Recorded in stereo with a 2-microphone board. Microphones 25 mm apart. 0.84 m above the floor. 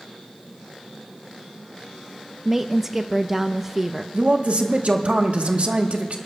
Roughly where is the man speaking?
Right.